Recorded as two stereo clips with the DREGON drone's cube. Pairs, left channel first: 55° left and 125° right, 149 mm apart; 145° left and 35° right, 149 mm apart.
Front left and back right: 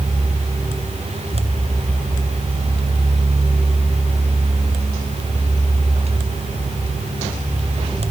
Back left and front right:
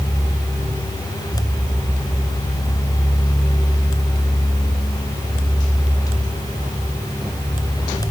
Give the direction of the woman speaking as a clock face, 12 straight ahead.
I don't hear a woman speaking.